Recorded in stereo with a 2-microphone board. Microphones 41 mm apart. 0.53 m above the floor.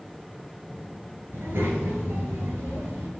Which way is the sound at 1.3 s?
75° right (ahead or behind).